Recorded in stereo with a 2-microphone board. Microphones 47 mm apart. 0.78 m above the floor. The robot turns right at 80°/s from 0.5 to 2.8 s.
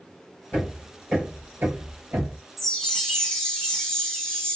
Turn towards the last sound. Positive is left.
turn(degrees=10)  # may be behind; listen again after turning